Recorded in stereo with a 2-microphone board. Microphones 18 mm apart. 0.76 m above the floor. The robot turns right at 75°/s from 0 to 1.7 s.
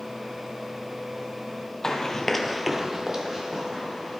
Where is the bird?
I don't hear a bird.